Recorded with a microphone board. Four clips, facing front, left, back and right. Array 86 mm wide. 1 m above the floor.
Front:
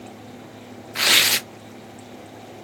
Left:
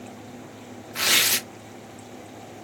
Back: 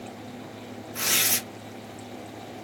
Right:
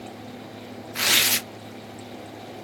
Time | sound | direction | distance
0.9 | tearing paper | straight ahead | 0.6 m